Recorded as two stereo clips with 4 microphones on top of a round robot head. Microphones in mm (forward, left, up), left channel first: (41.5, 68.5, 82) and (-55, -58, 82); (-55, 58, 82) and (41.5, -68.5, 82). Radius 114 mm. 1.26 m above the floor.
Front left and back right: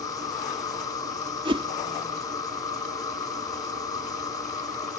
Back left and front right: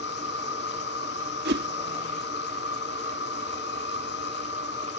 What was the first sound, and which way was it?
An insect, 115° left.